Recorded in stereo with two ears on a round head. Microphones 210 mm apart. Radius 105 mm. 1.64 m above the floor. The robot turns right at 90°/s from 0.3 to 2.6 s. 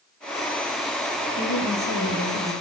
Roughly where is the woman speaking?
Ahead left.